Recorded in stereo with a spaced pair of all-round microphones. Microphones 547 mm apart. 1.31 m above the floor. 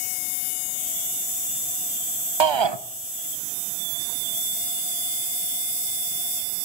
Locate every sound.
2.4 s a shout: 55° right (ahead or behind), 0.6 m